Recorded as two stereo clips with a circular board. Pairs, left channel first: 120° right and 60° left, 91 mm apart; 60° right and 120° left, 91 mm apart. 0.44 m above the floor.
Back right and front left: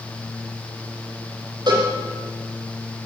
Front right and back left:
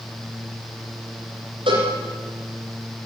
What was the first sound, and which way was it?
A cowbell, 100° left.